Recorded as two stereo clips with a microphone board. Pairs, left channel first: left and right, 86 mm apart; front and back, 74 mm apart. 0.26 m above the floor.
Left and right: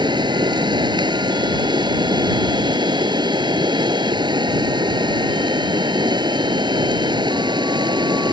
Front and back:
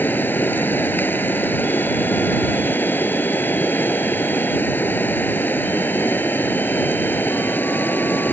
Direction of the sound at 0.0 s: 65° right.